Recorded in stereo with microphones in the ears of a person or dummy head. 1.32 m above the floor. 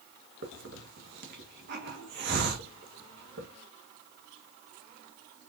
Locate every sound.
0.4 s a hiss: 65° right (ahead or behind), 1.2 m